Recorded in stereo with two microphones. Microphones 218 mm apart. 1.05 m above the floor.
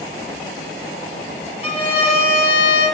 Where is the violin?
25° left (ahead or behind), 0.9 m.